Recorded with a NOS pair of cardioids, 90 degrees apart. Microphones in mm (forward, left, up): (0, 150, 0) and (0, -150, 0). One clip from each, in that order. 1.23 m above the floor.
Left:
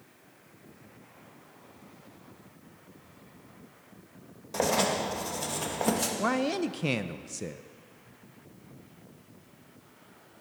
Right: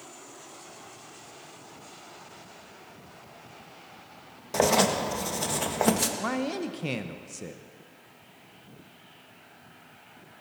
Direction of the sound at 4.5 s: 25° right.